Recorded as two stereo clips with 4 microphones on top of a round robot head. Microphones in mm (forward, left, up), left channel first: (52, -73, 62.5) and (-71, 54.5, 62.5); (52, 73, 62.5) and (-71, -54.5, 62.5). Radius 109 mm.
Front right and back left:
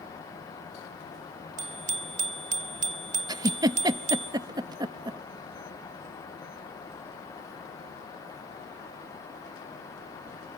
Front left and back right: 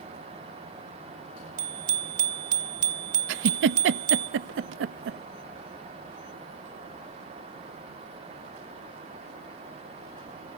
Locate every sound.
1.6 s a bicycle bell: straight behind, 2 m
3.3 s a giggle: 155° right, 0.5 m